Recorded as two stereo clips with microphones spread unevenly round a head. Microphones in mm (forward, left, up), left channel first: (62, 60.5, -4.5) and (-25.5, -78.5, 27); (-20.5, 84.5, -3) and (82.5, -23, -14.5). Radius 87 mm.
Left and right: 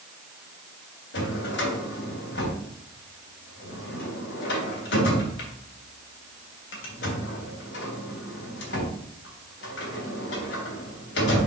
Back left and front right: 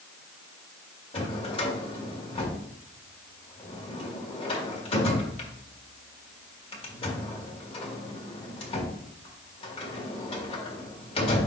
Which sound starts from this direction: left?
A drawer, at 1.1 s.